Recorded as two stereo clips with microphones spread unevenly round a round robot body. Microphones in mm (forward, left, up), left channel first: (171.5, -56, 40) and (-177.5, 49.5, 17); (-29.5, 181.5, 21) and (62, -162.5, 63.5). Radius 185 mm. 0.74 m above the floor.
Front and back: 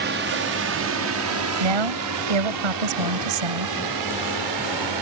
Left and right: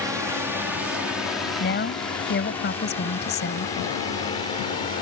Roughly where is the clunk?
No clunk in this recording.